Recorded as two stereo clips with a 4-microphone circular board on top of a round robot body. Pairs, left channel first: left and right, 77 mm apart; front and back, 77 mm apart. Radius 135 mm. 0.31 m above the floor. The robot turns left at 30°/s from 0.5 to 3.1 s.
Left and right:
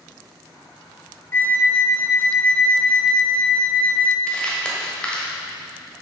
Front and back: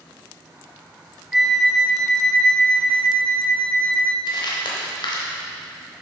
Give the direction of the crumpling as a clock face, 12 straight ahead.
12 o'clock.